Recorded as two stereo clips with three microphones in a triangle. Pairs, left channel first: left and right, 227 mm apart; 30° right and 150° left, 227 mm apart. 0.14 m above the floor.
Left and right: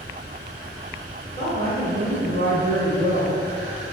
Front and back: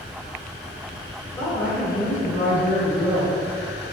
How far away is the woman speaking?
About 1.2 m.